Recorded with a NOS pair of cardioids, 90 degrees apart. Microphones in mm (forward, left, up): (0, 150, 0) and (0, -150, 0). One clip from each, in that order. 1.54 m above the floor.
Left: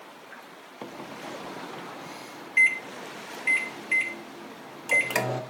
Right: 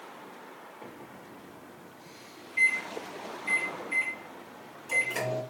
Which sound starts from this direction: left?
A microwave, at 0.8 s.